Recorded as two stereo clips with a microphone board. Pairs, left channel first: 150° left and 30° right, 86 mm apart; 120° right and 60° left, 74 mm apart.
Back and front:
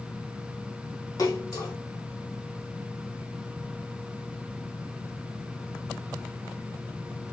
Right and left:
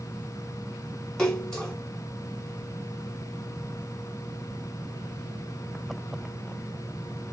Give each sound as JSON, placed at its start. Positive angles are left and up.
{"t": 1.2, "sound": "a splash", "azimuth_deg": 165, "distance_m": 2.5}